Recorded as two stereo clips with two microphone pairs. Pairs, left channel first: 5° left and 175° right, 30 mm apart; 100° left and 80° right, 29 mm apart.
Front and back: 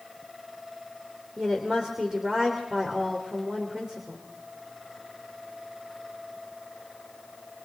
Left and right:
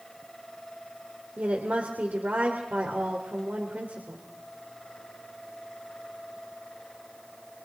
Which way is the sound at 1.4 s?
100° right.